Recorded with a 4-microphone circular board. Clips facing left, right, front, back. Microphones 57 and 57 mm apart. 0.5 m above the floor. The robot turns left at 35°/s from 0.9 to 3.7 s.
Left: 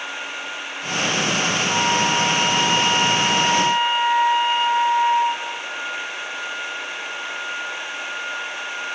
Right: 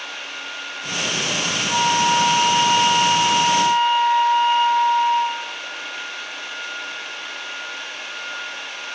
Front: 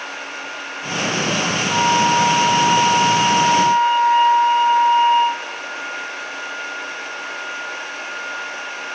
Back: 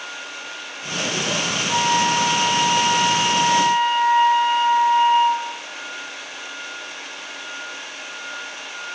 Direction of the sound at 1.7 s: 170° left.